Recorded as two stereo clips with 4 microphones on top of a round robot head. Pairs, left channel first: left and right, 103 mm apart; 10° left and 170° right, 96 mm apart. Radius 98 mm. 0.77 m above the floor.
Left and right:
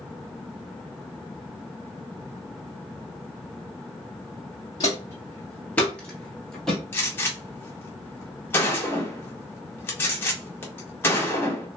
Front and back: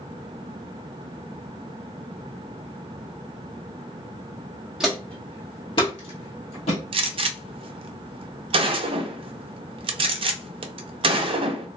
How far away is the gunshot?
About 0.5 m.